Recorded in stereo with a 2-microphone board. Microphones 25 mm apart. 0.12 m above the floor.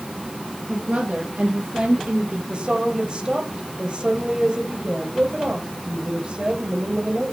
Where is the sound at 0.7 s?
70° right (ahead or behind), 4 m; by 2.4 s 65° right (ahead or behind), 3 m.